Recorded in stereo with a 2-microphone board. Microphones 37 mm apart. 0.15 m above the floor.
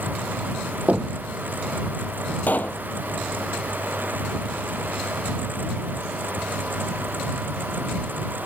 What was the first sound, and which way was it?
Knocking, 40° right (ahead or behind).